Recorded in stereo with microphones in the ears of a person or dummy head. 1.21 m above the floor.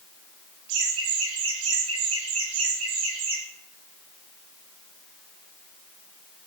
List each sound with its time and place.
0.7 s laughter: 75° right (ahead or behind), 6 m; by 3.4 s 85° right, 9 m